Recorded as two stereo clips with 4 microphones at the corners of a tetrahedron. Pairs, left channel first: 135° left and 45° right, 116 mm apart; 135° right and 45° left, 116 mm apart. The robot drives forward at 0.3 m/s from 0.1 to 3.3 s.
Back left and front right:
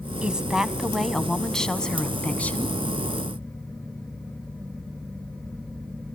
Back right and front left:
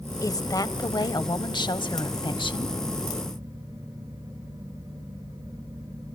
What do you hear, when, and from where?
0.2 s a woman speaking: 115° right, 1.1 m; by 2.8 s 155° right, 1.5 m